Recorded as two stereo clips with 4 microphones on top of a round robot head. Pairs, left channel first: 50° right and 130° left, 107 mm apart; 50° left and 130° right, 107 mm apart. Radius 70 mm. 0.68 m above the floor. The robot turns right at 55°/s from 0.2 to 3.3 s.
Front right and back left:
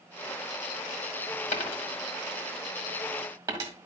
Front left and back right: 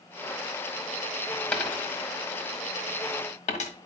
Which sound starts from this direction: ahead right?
A dropped coin, at 1.5 s.